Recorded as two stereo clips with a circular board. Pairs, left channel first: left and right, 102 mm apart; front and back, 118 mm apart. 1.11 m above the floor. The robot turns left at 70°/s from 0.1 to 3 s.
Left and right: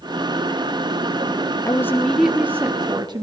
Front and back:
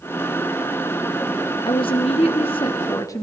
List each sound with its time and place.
1.6 s a woman speaking: 40° left, 0.8 m; by 3.2 s 55° right, 0.8 m